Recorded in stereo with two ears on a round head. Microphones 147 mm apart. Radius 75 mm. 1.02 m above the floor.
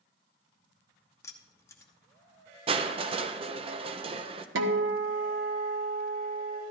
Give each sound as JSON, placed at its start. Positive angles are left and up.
{"t": 1.2, "sound": "keys jangling", "side_deg": 15, "distance_m": 0.8}
{"t": 2.7, "sound": "crushing", "side_deg": -35, "distance_m": 0.6}
{"t": 4.5, "sound": "a guitar", "side_deg": -80, "distance_m": 0.9}